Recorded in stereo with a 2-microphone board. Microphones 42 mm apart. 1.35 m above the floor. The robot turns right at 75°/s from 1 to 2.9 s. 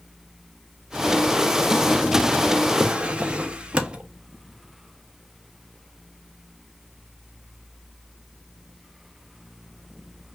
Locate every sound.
2.8 s a drawer: 25° right (ahead or behind), 0.7 m